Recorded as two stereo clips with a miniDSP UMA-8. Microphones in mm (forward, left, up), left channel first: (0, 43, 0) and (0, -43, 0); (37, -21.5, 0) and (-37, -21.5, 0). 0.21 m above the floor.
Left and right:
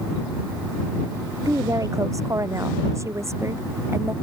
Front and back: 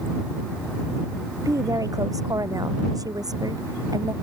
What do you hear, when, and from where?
1.4 s a woman speaking: 140° right; by 4.1 s 150° right